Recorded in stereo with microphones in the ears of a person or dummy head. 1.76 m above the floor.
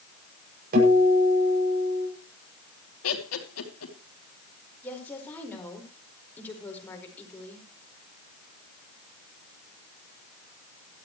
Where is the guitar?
45° right (ahead or behind), 7.5 m.